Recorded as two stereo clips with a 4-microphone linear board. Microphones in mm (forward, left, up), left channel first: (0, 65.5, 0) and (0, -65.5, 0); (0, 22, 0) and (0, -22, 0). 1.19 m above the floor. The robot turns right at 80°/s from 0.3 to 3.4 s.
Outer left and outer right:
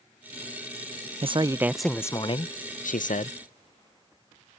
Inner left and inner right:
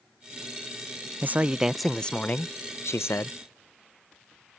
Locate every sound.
1.2 s a man speaking: 50° right; by 3.4 s 125° left